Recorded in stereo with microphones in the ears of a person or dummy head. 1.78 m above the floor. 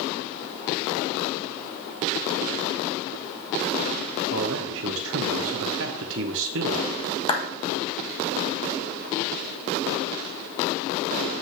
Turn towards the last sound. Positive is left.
turn(degrees=30)  # may be behind; listen again after turning